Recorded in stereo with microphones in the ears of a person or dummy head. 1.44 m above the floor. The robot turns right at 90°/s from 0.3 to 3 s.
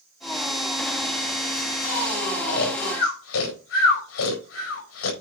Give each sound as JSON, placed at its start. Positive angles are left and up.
{"t": 2.5, "sound": "snoring", "side_deg": 40, "distance_m": 4.0}